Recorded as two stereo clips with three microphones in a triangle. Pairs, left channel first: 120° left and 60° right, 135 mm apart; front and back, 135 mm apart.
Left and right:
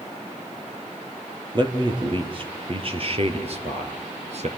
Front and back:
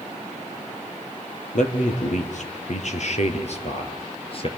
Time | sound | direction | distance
1.5 | a man speaking | 10° right | 3.5 m